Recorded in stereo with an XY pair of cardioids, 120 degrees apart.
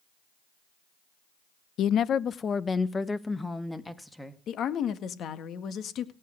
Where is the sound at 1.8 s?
65° left, 0.7 m; by 4.4 s 5° left, 1.9 m.